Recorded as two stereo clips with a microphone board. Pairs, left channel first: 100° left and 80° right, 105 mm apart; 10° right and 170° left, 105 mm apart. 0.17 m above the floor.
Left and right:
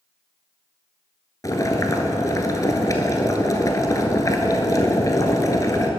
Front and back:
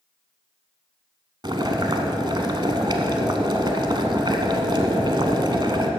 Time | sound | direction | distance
1.4 | boiling | 145° left | 0.8 m